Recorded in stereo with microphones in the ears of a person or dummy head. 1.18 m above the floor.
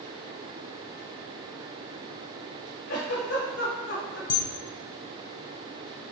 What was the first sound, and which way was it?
A giggle, 75° left (ahead or behind).